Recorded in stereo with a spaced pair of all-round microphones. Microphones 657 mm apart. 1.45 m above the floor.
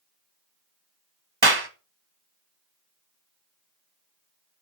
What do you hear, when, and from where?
1.4 s a clap: 35° right (ahead or behind), 1.6 m